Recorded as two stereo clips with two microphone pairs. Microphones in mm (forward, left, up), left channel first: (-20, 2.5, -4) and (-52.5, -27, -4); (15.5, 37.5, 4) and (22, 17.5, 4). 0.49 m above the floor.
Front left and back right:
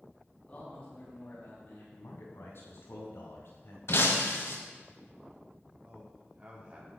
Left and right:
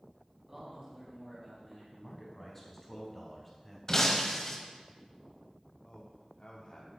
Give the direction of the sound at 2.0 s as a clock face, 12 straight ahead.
11 o'clock.